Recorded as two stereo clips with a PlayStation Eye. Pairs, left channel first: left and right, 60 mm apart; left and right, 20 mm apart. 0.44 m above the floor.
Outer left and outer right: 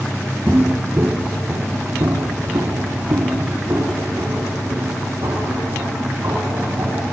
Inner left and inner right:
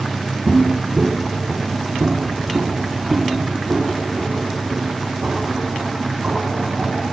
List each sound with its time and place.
0.5 s footsteps: 30° right (ahead or behind), 0.8 m; by 7.0 s 80° right, 5 m